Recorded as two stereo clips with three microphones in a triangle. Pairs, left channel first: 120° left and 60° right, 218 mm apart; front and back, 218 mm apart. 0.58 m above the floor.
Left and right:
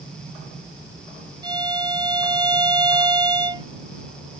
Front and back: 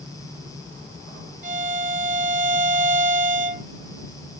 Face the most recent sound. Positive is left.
turn(degrees=-130)